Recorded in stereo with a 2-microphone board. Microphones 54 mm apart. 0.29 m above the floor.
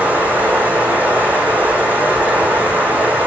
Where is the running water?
30° right (ahead or behind), 5.5 m.